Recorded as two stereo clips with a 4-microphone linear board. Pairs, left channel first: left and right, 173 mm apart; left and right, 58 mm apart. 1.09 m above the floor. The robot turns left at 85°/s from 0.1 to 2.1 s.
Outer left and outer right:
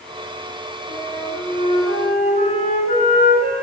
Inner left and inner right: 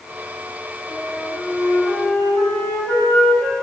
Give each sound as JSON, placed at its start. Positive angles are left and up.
{"t": 0.9, "sound": "a flute", "azimuth_deg": 40, "distance_m": 5.0}